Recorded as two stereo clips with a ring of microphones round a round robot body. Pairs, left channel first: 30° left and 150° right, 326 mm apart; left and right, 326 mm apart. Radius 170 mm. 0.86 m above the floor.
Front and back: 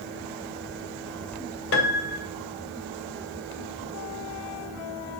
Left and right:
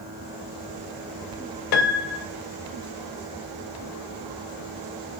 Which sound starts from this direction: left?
A piano, at 1.7 s.